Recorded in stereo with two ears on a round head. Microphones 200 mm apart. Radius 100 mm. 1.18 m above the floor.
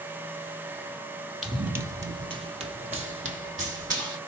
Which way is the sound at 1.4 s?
5° right (ahead or behind).